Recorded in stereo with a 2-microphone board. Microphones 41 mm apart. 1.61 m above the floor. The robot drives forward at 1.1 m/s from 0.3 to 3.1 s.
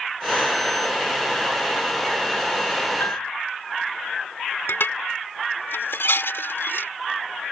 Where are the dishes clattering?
75° left (ahead or behind).